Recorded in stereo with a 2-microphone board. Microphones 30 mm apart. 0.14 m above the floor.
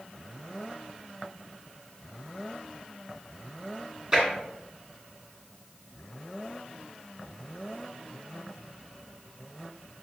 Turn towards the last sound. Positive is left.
turn(degrees=-25)  # may be behind; listen again after turning